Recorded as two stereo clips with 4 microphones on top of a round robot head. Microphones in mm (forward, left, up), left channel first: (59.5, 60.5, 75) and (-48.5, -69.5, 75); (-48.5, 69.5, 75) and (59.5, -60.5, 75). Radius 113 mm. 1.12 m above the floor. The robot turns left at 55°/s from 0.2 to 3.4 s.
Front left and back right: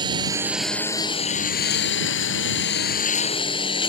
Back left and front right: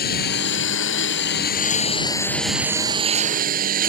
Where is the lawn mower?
165° left; by 3.9 s 10° right.